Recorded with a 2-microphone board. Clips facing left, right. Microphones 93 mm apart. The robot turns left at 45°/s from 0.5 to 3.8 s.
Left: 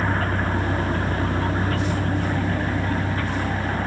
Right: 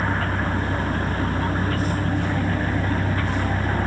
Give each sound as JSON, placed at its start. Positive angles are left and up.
{"t": 0.0, "sound": "a vehicle", "azimuth_deg": 115}